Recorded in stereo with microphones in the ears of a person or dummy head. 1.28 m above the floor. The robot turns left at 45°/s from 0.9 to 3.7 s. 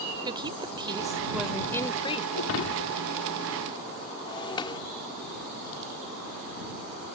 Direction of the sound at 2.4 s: 80° left.